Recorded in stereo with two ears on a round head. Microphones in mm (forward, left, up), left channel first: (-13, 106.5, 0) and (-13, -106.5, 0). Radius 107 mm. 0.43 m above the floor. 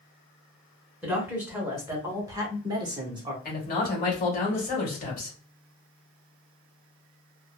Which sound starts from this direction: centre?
A woman speaking, at 1.0 s.